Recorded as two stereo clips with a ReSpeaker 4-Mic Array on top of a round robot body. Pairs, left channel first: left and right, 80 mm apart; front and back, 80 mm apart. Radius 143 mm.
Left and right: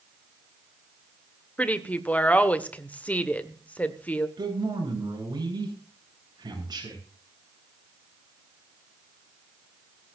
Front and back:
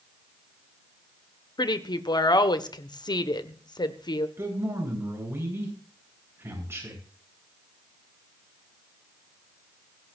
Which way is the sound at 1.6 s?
20° left.